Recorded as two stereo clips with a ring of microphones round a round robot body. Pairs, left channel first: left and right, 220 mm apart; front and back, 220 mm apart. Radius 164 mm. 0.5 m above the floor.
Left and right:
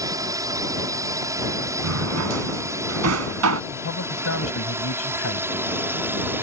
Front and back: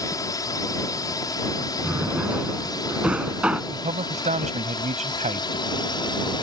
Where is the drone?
45° right; by 6.4 s 25° right.